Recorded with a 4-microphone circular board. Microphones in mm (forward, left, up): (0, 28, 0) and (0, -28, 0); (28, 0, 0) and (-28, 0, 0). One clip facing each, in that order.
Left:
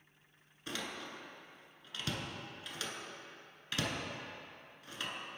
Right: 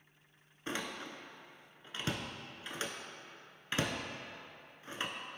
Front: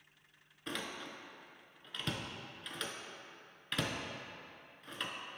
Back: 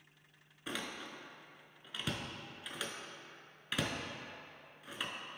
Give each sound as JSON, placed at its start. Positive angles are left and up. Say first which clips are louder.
{"t": 0.7, "sound": "a door slam", "louder": "right 2 dB, even", "azimuth_deg": -105, "distance_m": 0.8}